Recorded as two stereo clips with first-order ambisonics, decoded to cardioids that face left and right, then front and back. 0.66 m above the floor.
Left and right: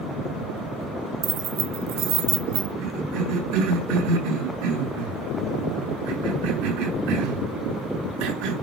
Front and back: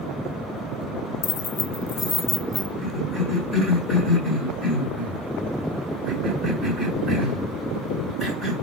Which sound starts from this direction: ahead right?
Keys jangling, at 1.2 s.